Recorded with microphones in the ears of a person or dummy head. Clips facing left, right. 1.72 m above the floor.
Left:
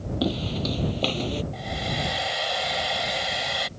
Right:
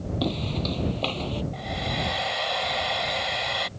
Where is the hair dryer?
5° left (ahead or behind).